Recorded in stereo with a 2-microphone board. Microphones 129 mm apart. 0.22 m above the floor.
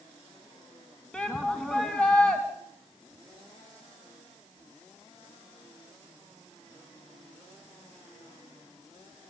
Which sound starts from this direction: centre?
A shout, at 1.1 s.